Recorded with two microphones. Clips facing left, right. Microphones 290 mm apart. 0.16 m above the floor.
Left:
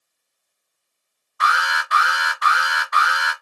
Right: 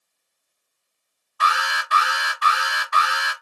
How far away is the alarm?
About 1.6 m.